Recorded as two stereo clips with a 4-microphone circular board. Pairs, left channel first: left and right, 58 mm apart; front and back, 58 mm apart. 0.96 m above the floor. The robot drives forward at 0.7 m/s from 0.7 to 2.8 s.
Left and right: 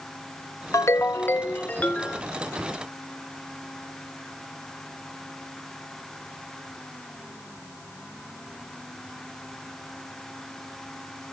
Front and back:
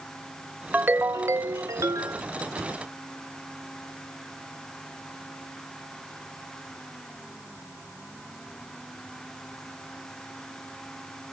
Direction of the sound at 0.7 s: 120° left.